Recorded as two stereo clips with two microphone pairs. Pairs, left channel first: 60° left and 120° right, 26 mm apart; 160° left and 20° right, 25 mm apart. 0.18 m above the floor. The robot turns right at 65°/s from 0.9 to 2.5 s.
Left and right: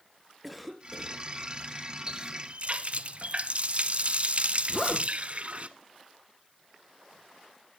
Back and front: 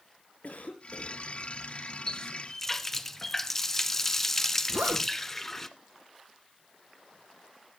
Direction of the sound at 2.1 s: 160° right.